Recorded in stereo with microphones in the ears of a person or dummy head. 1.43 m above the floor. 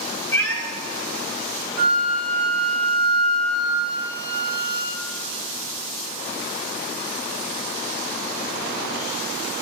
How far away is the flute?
About 6.5 m.